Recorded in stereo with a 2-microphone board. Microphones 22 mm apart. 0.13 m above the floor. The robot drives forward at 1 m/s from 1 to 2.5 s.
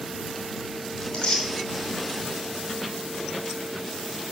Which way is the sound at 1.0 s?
45° left (ahead or behind).